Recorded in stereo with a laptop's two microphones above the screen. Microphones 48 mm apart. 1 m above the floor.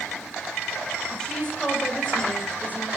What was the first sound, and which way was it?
A woman speaking, 15° left (ahead or behind).